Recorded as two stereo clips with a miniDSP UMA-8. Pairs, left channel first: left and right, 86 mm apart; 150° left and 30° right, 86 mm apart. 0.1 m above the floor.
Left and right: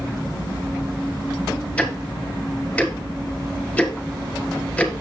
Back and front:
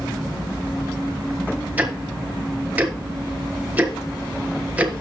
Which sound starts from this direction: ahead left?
Ticking, at 1.8 s.